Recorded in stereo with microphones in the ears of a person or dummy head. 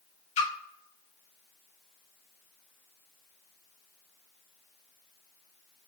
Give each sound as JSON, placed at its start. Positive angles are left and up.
{"t": 0.4, "sound": "a splash", "side_deg": 40, "distance_m": 0.5}